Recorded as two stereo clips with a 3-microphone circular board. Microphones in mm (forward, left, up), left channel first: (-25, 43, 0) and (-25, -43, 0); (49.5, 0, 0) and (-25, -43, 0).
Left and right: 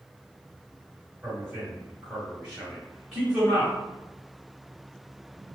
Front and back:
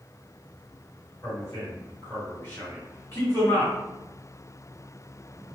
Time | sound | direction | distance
1.2 | a man speaking | 5° right | 1.5 m